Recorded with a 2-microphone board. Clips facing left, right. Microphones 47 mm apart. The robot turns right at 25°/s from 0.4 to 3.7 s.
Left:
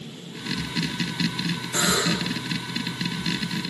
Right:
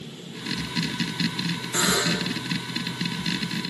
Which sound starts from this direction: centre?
A buzzer, at 1.7 s.